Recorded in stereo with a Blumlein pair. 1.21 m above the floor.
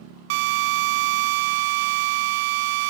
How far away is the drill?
About 0.6 m.